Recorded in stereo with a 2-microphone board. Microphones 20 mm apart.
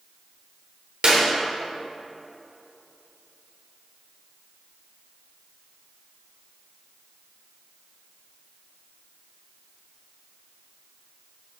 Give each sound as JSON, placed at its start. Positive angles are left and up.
{"t": 1.0, "sound": "a clap", "side_deg": -70, "distance_m": 2.5}